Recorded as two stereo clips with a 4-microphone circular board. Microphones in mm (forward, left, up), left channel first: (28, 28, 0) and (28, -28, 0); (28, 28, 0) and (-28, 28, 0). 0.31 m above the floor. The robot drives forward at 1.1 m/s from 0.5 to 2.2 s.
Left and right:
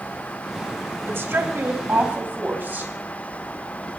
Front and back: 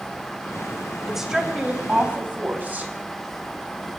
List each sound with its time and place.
1.1 s a woman speaking: 95° right, 1.9 m; by 2.9 s 135° right, 2.5 m